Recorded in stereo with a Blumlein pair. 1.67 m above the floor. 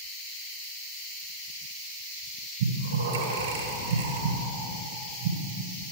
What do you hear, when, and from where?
2.6 s breathing: 65° right, 1.5 m